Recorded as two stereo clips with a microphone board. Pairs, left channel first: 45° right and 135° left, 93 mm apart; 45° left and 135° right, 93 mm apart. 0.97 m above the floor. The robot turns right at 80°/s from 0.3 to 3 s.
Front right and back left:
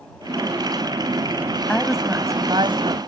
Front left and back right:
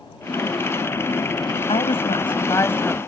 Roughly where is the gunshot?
No gunshot in this recording.